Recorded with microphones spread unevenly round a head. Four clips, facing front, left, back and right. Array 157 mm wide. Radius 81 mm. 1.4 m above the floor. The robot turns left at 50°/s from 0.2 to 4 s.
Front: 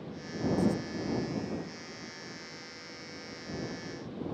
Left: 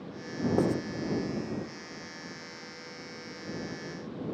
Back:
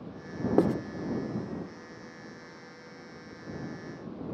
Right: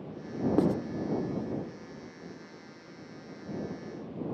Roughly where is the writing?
Behind.